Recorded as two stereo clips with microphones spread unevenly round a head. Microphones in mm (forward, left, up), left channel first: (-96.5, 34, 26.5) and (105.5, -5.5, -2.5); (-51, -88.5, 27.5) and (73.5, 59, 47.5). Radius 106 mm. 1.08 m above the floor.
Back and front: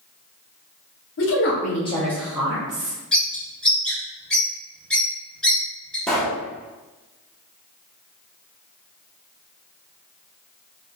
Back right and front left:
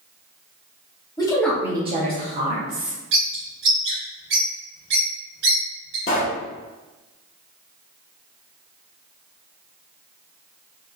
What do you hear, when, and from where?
1.2 s a woman speaking: 170° left, 0.9 m; by 3.0 s 50° left, 1.4 m
3.1 s a bird: 85° left, 0.9 m
6.1 s a pop: 120° right, 0.6 m